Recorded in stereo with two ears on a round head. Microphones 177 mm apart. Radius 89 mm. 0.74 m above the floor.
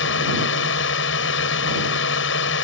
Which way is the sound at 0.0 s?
65° left (ahead or behind).